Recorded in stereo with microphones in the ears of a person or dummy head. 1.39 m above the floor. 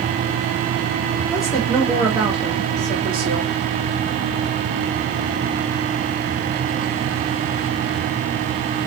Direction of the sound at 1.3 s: Centre (ahead or behind).